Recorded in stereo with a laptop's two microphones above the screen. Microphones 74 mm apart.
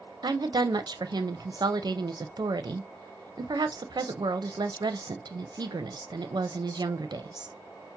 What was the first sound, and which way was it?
A woman speaking, 70° right (ahead or behind).